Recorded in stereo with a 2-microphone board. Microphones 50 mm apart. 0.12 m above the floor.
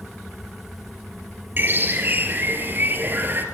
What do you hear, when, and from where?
1.6 s a bird: 40° right (ahead or behind), 3 m